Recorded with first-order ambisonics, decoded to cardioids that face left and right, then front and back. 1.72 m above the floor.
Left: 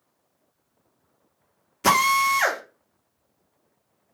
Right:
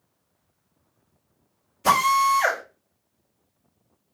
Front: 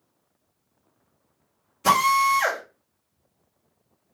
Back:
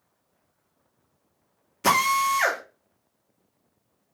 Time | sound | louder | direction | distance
1.8 | a drill | even, front 2 dB | 130° left | 0.9 m